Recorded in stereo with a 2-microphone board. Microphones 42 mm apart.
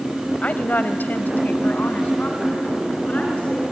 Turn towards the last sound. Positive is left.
turn(degrees=35)  # may be behind; listen again after turning